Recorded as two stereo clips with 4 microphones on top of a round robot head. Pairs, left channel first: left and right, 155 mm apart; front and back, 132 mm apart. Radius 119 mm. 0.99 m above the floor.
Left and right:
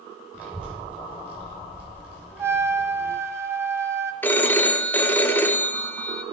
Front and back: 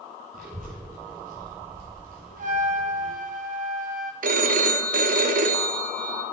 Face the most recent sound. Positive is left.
turn(degrees=170)